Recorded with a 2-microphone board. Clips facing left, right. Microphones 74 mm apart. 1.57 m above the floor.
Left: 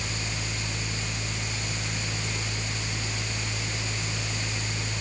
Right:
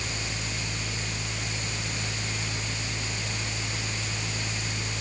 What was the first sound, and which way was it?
Only background noise.